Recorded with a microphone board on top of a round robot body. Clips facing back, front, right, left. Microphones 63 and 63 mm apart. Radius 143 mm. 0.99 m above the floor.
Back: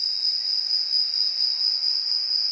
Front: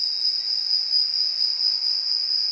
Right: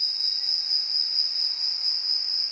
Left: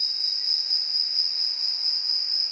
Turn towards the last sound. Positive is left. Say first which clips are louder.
# front 1 dB, even
turn(degrees=-50)